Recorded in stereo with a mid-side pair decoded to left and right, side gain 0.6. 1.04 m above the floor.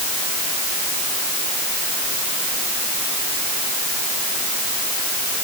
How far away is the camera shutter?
No camera shutter in this recording.